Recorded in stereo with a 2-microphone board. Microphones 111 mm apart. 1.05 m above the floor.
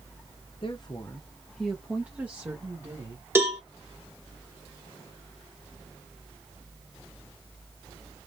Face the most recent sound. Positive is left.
turn(degrees=-20)  # may be behind; listen again after turning